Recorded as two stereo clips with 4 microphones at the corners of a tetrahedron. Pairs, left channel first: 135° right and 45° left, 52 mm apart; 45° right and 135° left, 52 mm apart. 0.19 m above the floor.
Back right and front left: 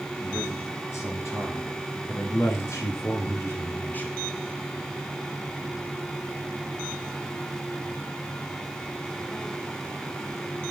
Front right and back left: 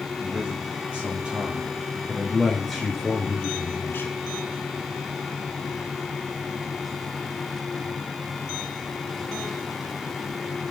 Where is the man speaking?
160° right, 5 m; by 4.2 s 75° right, 1.9 m.